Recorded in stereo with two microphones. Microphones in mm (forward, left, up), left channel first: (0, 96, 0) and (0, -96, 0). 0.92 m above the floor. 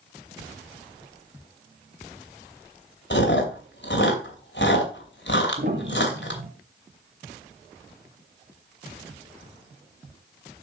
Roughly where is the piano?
Right.